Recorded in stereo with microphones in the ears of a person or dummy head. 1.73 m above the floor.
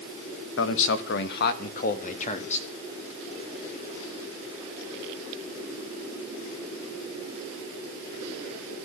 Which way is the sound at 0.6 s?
70° left (ahead or behind).